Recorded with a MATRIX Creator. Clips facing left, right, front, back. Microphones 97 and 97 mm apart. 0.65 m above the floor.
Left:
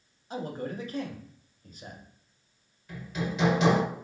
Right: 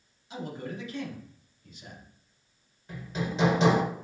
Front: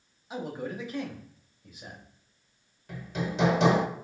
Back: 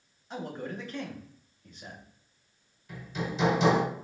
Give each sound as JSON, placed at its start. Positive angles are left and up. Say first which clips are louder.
{"t": 0.3, "sound": "a man speaking", "louder": "left 3 dB, front 2 dB", "azimuth_deg": 80, "distance_m": 0.7}
{"t": 2.9, "sound": "hammering", "louder": "even, front 2 dB", "azimuth_deg": -30, "distance_m": 1.4}